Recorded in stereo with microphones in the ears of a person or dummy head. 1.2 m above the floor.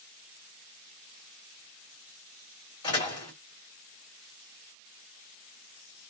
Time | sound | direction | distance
2.8 | a door slam | 25° left (ahead or behind) | 1.6 m